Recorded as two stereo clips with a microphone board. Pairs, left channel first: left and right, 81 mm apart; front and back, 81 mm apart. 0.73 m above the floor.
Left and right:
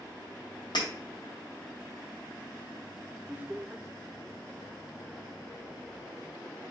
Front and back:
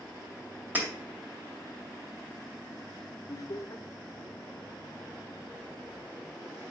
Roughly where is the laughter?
Ahead right.